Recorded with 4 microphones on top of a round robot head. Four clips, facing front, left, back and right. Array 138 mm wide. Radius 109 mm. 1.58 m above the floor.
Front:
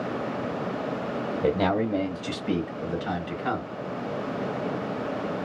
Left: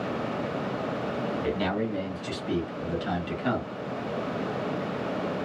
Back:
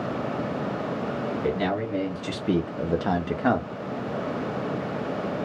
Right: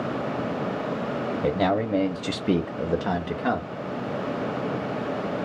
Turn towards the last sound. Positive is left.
turn(degrees=-160)